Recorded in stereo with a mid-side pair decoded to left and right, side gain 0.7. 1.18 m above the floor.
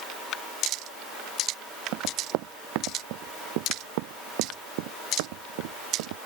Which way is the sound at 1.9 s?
65° right.